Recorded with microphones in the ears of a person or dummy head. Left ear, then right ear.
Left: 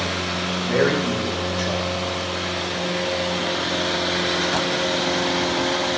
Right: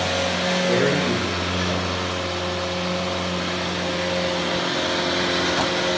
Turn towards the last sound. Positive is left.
turn(degrees=35)  # may be behind; listen again after turning